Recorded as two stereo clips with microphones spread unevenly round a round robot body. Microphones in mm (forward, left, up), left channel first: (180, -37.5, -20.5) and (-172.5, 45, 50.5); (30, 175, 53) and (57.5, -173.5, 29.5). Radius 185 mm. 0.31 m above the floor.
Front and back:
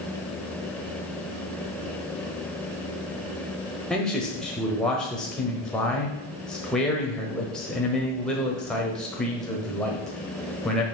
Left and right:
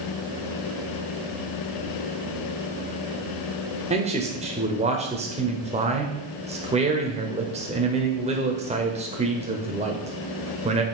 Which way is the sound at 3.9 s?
70° right.